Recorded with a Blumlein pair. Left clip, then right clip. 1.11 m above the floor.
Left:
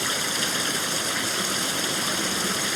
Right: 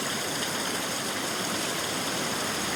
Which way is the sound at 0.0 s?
65° left.